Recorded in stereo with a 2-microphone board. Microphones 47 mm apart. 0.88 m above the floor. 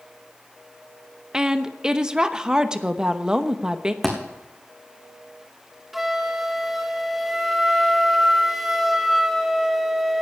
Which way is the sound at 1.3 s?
15° right (ahead or behind).